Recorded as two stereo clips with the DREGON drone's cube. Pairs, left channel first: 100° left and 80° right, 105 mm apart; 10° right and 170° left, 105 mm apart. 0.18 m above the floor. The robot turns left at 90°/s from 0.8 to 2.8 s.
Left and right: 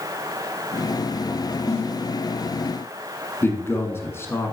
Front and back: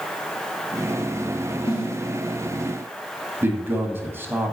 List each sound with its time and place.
1.7 s a snare drum: 45° left, 2.5 m; by 2.0 s 15° left, 2.5 m
3.4 s a man speaking: 130° left, 1.2 m